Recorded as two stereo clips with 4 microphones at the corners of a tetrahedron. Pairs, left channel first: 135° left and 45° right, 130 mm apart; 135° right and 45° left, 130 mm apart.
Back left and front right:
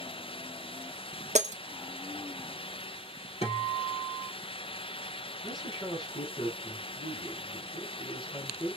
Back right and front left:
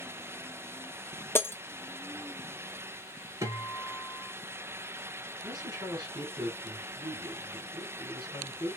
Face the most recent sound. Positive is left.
turn(degrees=95)